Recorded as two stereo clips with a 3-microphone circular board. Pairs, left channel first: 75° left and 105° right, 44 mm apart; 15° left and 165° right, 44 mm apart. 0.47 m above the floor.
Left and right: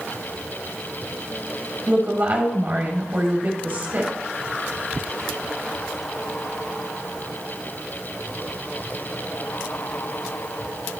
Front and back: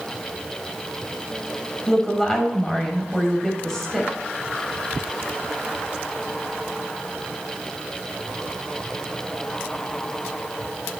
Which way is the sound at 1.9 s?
60° right.